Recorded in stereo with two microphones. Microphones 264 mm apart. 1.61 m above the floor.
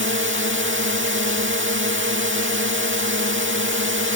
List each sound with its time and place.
0.0 s a drone: 50° right (ahead or behind)